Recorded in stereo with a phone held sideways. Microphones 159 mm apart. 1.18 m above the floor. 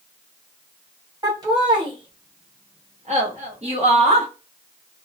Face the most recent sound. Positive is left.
turn(degrees=-45)  # may be behind; listen again after turning